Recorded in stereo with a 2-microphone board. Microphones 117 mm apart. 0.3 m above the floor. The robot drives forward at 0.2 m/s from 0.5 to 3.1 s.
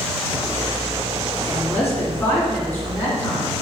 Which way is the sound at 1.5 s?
20° left (ahead or behind).